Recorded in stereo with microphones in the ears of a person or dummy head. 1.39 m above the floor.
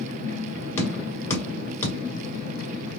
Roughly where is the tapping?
Centre.